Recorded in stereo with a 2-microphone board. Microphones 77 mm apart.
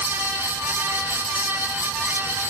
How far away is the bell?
I don't hear a bell.